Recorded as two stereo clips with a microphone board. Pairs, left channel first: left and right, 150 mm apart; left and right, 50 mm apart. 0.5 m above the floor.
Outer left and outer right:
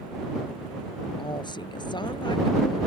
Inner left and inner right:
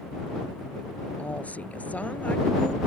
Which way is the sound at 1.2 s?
30° left (ahead or behind).